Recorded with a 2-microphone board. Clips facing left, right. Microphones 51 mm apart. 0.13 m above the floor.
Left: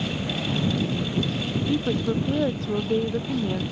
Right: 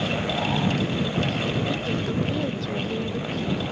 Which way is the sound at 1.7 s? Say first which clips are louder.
Left 2 dB; 30° left (ahead or behind).